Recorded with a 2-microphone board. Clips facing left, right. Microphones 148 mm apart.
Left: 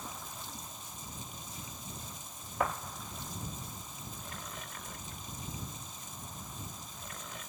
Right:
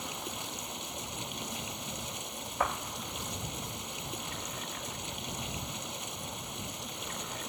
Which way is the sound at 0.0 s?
75° right (ahead or behind).